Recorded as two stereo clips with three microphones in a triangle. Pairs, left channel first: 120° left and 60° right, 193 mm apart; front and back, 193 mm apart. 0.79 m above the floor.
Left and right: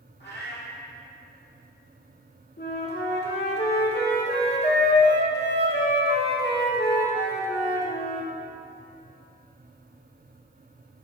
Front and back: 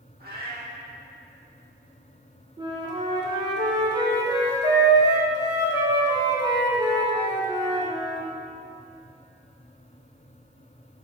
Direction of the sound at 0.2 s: 145° left.